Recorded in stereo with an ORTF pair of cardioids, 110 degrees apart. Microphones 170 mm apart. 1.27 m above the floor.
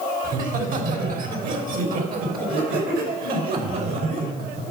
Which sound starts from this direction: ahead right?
Laughter, at 0.2 s.